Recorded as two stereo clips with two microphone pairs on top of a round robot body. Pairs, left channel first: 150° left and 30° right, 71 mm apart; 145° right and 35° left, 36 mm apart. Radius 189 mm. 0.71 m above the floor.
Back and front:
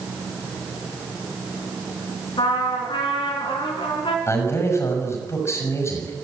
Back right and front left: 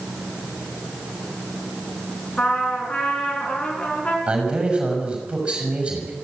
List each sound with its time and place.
2.4 s a trumpet: 150° left, 3.5 m
4.3 s a man speaking: 100° left, 6 m